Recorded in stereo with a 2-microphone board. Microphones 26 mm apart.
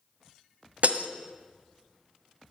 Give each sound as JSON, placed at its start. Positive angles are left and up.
{"t": 0.8, "sound": "breaking glass", "side_deg": -65, "distance_m": 1.3}